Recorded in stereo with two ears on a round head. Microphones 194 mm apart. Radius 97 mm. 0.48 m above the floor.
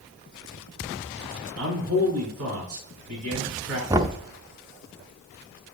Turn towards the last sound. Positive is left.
turn(degrees=-15)  # may be behind; listen again after turning